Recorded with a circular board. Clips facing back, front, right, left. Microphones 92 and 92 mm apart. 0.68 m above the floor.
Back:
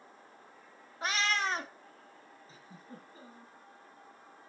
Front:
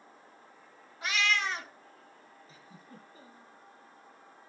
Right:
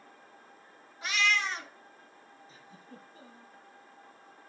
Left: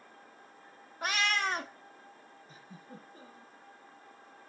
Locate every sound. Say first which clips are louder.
1.0 s a cat meowing: front 1 dB, right 1 dB; 130° left, 0.7 m
2.5 s a giggle: back 3 dB, left 3 dB; 125° left, 4.5 m